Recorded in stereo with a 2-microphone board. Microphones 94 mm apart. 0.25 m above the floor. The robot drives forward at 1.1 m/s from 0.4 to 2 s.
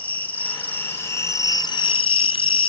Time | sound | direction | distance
0.0 | an insect | 15° left (ahead or behind) | 1.9 m